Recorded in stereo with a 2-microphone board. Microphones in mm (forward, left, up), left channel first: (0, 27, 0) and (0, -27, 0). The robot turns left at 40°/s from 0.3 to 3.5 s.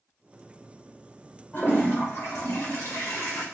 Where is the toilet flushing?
145° left, 1.3 m; by 3.5 s 65° left, 1.3 m.